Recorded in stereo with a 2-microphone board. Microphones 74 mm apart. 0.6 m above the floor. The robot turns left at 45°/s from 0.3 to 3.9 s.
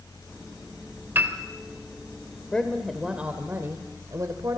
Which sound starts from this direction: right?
A piano, at 1.1 s.